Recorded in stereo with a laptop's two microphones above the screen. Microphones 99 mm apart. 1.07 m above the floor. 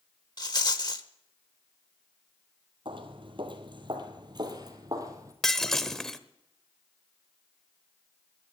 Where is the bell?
No bell in this recording.